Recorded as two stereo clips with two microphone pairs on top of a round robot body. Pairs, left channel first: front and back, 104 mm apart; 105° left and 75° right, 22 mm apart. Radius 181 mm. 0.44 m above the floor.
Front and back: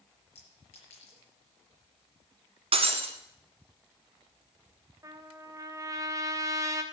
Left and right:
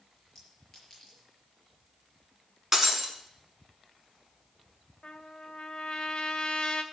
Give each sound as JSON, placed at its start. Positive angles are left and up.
{"t": 0.3, "sound": "a clink", "azimuth_deg": 25, "distance_m": 6.0}
{"t": 2.7, "sound": "breaking glass", "azimuth_deg": -150, "distance_m": 1.5}
{"t": 5.0, "sound": "a trumpet", "azimuth_deg": 135, "distance_m": 1.8}